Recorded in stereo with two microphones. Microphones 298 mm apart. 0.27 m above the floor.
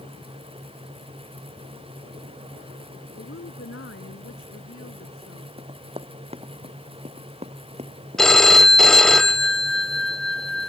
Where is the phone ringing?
Centre (ahead or behind).